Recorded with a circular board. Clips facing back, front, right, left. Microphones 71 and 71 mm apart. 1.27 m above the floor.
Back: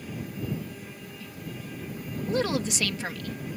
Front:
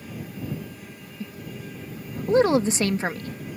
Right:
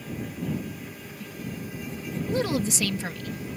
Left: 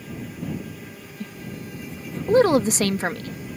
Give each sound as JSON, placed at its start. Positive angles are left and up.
{"t": 1.2, "sound": "a woman speaking", "azimuth_deg": 55}